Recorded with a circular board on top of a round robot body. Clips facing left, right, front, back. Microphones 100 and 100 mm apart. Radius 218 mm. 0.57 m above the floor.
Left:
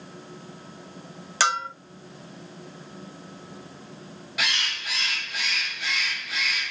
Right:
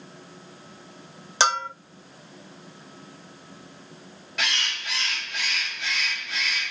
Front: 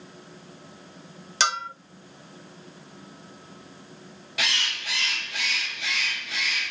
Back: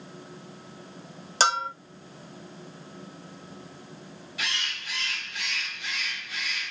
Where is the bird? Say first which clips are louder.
Even, front 4 dB; 5° left, 0.5 m.